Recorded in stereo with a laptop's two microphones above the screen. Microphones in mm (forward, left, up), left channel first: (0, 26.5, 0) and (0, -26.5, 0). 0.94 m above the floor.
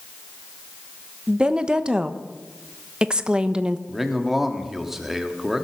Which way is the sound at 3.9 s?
5° right (ahead or behind).